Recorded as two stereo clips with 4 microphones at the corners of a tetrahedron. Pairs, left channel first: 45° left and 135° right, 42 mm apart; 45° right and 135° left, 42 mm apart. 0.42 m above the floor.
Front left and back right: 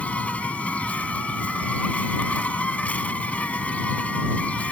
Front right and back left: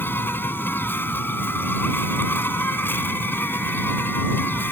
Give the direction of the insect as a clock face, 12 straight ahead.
12 o'clock.